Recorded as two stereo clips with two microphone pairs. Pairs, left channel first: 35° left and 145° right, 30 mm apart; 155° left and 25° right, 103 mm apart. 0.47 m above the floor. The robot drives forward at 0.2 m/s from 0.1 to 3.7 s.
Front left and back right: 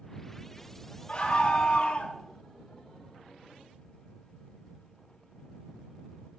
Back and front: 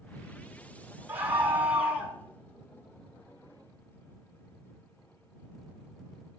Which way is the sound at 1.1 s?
35° left.